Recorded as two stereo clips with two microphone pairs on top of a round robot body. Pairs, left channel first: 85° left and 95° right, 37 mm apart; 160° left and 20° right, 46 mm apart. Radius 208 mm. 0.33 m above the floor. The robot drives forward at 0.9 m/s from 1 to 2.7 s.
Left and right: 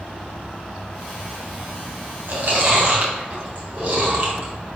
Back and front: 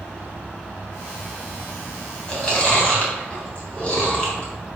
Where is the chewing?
130° right, 3 m; by 4.5 s 135° right, 3 m.